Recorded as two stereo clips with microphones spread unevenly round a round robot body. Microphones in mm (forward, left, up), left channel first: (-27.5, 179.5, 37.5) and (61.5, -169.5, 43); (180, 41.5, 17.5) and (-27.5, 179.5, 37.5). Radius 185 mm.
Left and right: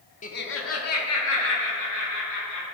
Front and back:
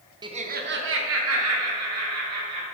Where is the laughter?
90° left, 0.7 m; by 2.6 s 140° left, 2 m.